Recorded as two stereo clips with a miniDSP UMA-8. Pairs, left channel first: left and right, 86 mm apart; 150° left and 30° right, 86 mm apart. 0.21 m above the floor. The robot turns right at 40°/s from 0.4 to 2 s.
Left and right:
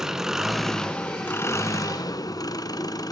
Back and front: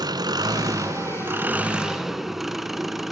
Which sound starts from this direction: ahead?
An engine running, at 0.0 s.